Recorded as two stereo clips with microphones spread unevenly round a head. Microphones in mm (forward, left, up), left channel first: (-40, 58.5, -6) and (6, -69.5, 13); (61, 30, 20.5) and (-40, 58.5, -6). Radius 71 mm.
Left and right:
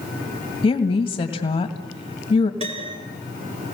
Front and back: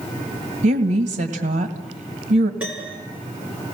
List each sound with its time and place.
0.6 s a woman speaking: 170° left, 2 m
2.6 s a piano: 110° right, 4.5 m